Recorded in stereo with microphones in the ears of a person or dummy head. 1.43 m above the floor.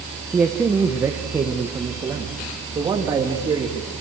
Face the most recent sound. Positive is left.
turn(degrees=-15)  # may be behind; listen again after turning